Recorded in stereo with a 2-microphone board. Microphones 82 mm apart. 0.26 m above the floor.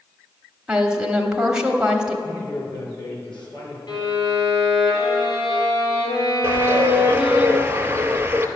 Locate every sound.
0.7 s a woman speaking: 10° right (ahead or behind), 1.0 m
2.2 s a man speaking: 70° left (ahead or behind), 3.5 m
3.9 s a violin: 65° left (ahead or behind), 4 m
6.4 s a bird: 25° right (ahead or behind), 0.8 m